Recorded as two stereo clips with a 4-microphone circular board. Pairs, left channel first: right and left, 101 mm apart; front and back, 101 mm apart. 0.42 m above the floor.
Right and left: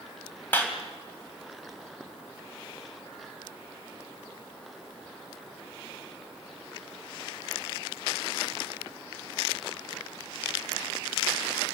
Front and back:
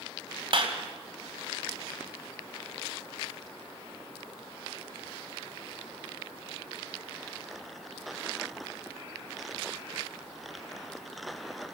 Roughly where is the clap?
Behind.